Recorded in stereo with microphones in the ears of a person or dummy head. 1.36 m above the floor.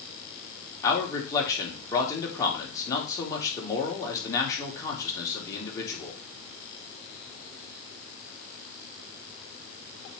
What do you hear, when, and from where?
0.8 s a man speaking: 20° left (ahead or behind), 3 m